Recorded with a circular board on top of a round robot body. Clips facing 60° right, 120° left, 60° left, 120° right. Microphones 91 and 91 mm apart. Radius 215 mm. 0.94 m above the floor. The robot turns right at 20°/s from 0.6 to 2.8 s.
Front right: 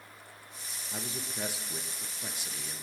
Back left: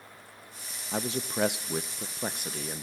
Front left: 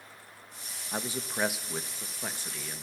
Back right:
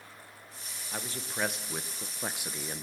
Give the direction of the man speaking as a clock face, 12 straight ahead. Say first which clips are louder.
Back left 9 dB, front left 4 dB; 8 o'clock.